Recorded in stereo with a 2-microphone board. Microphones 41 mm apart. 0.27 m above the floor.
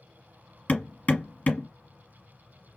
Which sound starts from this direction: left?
Hammering, at 0.7 s.